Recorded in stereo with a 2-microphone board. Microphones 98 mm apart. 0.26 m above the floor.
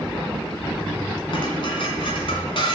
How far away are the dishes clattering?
About 1.7 m.